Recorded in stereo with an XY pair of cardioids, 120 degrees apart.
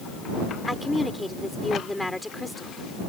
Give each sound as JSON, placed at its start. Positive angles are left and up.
{"t": 0.7, "sound": "a woman speaking", "azimuth_deg": 5}